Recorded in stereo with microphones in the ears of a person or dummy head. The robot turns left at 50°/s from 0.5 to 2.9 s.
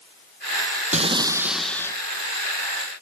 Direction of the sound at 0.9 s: 145° right.